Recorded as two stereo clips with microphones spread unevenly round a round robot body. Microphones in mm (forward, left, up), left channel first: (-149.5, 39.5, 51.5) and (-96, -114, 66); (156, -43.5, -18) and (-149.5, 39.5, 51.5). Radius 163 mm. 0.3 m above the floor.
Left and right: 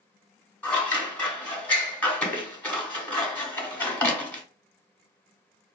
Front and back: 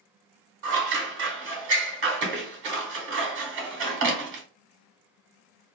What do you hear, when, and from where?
0.6 s scissors: 160° left, 1.2 m